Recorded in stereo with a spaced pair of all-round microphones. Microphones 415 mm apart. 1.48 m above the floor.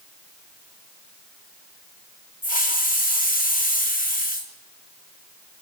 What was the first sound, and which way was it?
A hiss, 20° left (ahead or behind).